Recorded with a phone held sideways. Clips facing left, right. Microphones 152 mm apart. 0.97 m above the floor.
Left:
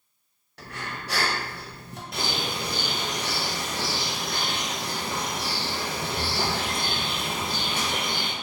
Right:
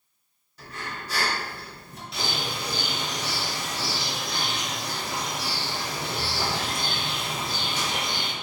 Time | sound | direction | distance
0.6 | breathing | 70° left (ahead or behind) | 0.7 m
2.1 | a bird | 50° left (ahead or behind) | 0.6 m